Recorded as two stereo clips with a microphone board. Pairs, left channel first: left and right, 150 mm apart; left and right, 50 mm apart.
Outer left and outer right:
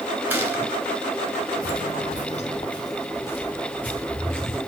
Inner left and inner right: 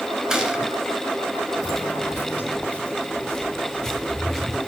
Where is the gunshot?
10° right (ahead or behind), 2.5 m.